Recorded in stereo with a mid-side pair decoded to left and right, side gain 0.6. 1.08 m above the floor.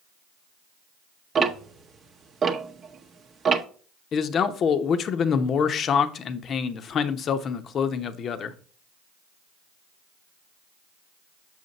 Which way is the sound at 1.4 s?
35° right.